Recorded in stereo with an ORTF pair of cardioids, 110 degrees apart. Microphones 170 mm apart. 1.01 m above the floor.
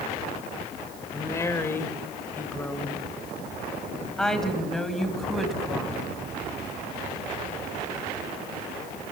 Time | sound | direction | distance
1.1 | a woman speaking | 20° left | 3 m